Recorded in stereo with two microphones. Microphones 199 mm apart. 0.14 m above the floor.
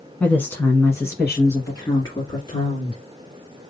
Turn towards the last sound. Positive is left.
turn(degrees=20)  # may be behind; listen again after turning